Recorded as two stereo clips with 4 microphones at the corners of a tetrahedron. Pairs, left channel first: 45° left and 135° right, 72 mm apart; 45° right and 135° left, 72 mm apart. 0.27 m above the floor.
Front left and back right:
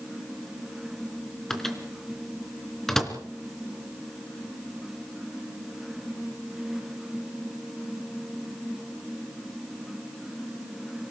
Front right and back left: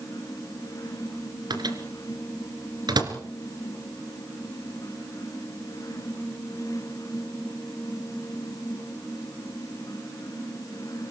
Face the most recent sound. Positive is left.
turn(degrees=130)